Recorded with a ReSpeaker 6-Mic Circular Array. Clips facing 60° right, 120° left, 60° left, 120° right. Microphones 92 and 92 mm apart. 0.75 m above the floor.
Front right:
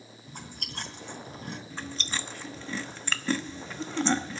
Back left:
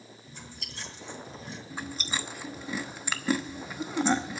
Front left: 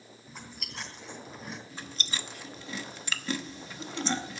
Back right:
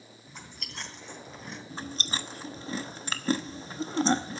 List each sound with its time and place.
0.3 s chewing: 25° right, 3 m
1.7 s chewing: 165° right, 0.9 m